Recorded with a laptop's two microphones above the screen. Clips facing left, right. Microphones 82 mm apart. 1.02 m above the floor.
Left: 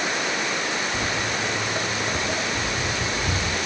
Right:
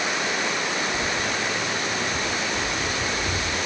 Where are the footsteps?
65° left (ahead or behind), 2.5 m; by 3.6 s 60° left (ahead or behind), 3.5 m.